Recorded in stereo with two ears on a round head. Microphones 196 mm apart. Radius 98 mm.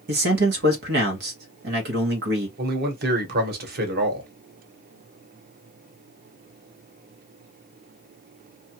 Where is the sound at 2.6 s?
45° right (ahead or behind), 1.1 m.